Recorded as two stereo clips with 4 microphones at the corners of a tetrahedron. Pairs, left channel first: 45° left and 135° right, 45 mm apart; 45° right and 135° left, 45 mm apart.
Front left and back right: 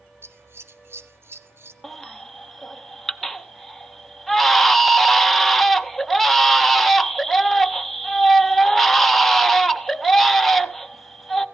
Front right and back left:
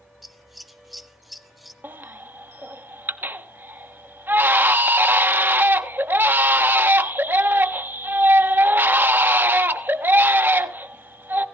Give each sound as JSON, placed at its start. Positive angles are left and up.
{"t": 0.2, "sound": "scissors", "azimuth_deg": -140, "distance_m": 0.6}
{"t": 1.8, "sound": "a baby crying", "azimuth_deg": 130, "distance_m": 0.6}